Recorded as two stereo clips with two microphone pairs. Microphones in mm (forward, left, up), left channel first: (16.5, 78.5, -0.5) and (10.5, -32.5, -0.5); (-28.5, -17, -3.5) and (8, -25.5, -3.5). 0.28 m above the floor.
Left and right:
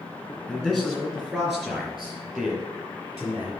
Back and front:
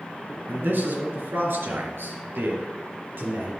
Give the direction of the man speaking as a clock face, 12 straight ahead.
12 o'clock.